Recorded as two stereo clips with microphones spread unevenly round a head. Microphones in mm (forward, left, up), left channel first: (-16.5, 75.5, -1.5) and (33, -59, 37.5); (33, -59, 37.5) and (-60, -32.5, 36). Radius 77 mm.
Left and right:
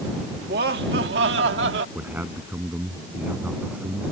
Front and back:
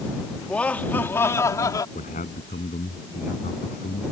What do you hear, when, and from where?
0.4 s laughter: 95° right; by 1.9 s 70° right
1.9 s a man speaking: 10° left